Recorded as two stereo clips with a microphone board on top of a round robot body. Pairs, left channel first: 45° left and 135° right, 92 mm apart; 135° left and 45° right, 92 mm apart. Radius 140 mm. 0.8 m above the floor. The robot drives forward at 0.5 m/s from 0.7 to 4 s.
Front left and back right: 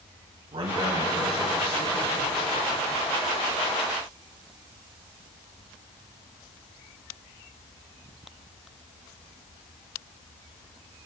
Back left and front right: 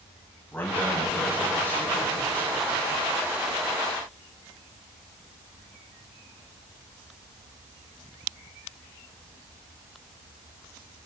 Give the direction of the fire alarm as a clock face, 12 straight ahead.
No fire alarm in this recording.